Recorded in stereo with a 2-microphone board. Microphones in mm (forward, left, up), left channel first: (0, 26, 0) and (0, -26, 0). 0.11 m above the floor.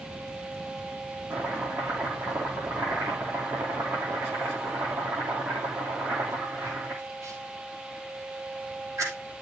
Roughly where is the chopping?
Right.